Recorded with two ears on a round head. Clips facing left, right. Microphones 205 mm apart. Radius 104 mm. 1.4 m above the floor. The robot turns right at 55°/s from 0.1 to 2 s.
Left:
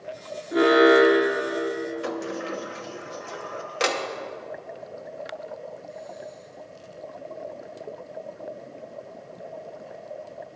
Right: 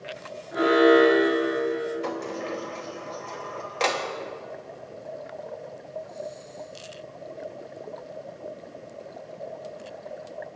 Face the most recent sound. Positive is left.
turn(degrees=15)  # may be behind; listen again after turning